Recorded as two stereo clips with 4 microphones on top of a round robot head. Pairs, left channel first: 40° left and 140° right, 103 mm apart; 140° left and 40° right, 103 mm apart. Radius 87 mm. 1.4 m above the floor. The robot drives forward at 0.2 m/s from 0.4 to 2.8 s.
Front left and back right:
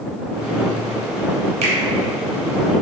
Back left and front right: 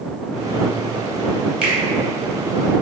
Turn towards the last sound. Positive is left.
turn(degrees=-125)